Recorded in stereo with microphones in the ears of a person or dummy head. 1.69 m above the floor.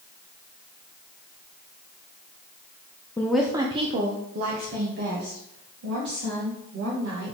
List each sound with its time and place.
3.2 s a woman speaking: 15° left (ahead or behind), 0.6 m; by 7.3 s 65° right (ahead or behind), 4 m